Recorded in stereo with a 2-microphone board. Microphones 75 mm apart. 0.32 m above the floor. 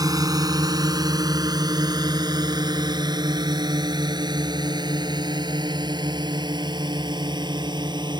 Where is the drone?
55° right (ahead or behind); by 8.2 s 75° right (ahead or behind).